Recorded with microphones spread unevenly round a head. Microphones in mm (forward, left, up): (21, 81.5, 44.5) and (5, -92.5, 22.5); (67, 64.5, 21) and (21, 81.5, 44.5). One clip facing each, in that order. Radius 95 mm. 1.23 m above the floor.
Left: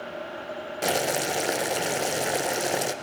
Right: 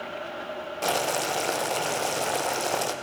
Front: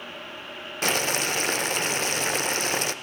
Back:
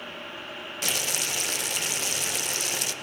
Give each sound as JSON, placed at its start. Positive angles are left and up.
{"t": 0.8, "sound": "boiling", "azimuth_deg": 10, "distance_m": 0.6}